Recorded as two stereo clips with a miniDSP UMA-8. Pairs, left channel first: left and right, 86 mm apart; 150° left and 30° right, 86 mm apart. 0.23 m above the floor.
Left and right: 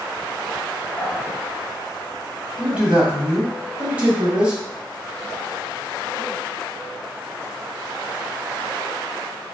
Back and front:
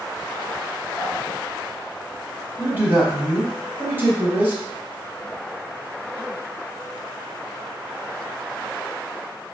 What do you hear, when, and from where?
1.0 s dripping: 115° left, 0.8 m
2.6 s a man speaking: 35° right, 1.1 m